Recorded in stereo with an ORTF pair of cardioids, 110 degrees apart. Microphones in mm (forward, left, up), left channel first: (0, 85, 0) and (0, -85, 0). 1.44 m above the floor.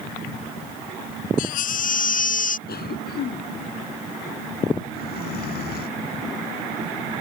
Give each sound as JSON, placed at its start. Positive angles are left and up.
{"t": 1.4, "sound": "a baby crying", "azimuth_deg": 55}
{"t": 2.7, "sound": "a cough", "azimuth_deg": 65}